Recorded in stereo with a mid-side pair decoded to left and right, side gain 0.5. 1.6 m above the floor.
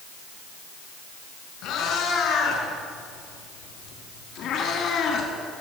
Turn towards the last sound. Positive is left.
turn(degrees=65)